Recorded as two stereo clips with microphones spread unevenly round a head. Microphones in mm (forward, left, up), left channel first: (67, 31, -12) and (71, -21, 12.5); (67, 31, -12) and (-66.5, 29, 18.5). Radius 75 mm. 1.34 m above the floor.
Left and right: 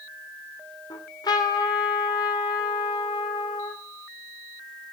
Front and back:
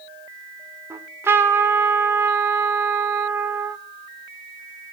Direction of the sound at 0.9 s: 115° left.